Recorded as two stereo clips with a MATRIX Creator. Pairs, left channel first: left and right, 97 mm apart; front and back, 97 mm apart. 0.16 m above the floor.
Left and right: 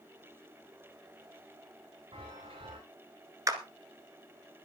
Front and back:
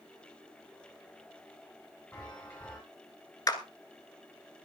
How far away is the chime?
About 6.5 m.